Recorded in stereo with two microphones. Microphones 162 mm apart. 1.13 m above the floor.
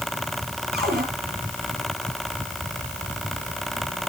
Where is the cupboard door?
75° right (ahead or behind), 6.5 m.